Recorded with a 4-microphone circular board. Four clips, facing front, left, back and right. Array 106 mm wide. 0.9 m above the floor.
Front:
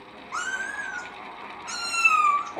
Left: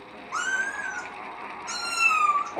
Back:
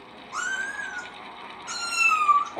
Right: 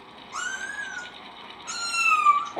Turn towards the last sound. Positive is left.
turn(degrees=-60)